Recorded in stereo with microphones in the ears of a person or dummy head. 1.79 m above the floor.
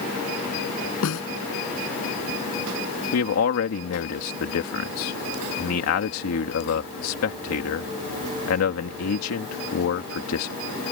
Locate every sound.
1.0 s a snare drum: 70° left (ahead or behind)
3.1 s a man speaking: 75° left (ahead or behind)